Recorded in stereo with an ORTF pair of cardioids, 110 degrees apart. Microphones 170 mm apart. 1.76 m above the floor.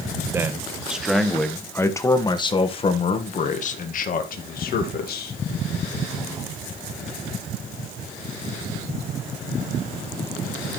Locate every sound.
0.3 s a man speaking: 15° right, 2 m; by 5.4 s 65° left, 3 m